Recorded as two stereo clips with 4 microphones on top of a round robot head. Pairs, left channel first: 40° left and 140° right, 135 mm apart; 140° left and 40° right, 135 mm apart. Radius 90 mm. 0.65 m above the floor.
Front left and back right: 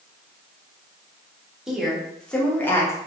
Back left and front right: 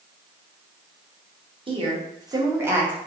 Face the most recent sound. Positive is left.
turn(degrees=25)